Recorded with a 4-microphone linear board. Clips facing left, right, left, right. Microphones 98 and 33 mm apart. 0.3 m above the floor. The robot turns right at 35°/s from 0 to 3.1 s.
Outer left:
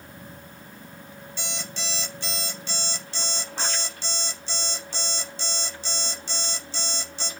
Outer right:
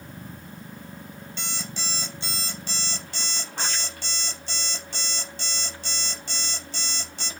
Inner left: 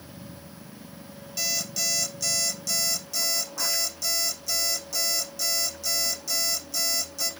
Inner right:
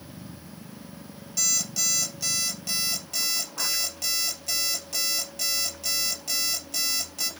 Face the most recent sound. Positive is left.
turn(degrees=-130)